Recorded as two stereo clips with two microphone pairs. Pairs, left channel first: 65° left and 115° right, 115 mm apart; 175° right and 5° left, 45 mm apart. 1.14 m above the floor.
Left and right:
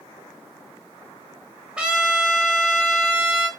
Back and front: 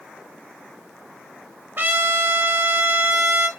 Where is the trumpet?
35° right, 0.7 m.